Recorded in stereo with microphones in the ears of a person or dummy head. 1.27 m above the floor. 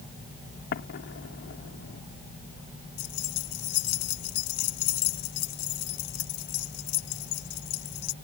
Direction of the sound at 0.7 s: 55° left (ahead or behind).